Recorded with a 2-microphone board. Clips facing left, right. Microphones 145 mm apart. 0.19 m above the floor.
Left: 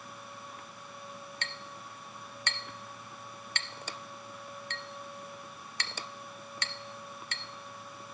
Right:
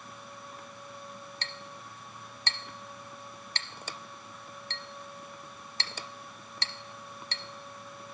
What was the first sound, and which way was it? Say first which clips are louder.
A clink: even; 35° right (ahead or behind).